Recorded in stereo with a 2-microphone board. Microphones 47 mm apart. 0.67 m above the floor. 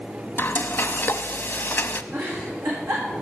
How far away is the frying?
About 0.6 m.